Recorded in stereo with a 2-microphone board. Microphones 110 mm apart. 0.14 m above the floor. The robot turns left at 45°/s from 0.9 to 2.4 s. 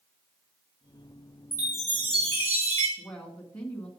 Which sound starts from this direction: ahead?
A chime, at 1.5 s.